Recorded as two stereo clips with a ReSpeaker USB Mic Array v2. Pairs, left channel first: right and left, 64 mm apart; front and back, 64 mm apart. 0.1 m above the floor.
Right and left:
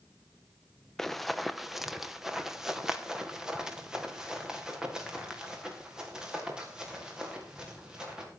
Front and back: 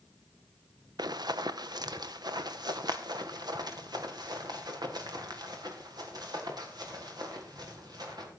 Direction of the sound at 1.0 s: 175° right.